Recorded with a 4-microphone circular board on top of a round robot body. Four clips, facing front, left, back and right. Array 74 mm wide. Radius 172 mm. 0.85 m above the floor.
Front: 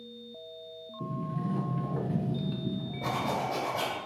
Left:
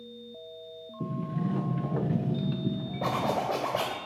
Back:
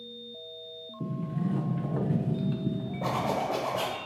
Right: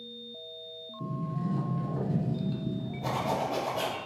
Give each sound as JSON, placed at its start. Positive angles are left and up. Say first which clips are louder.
{"t": 1.0, "sound": "a sliding door", "louder": "left 2 dB, back 2 dB", "azimuth_deg": 115, "distance_m": 1.0}
{"t": 3.0, "sound": "a zipper", "louder": "left 2 dB, back 2 dB", "azimuth_deg": 115, "distance_m": 0.9}